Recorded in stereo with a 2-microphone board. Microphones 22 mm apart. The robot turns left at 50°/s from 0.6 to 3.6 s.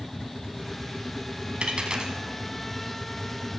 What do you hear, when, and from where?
1.6 s a dropped coin: 55° right (ahead or behind), 1.9 m; by 2.1 s 30° right (ahead or behind), 1.9 m